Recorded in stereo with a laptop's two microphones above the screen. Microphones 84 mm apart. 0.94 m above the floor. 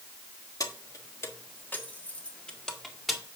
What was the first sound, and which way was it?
Keys jangling, 45° left (ahead or behind).